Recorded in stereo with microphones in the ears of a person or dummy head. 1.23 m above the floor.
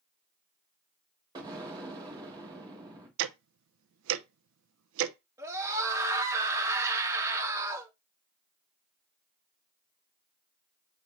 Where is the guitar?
No guitar in this recording.